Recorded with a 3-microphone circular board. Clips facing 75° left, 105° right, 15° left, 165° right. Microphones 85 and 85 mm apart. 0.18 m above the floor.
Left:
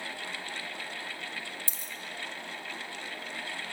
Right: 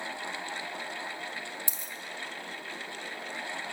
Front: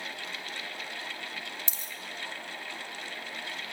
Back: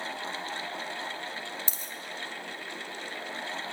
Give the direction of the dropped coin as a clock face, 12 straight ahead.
5 o'clock.